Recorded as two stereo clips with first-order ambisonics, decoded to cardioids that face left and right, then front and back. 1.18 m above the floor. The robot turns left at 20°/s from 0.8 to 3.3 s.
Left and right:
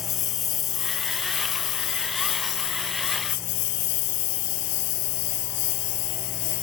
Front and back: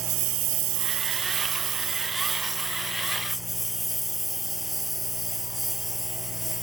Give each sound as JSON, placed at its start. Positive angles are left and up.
{"t": 0.0, "sound": "a lawn mower", "azimuth_deg": 140}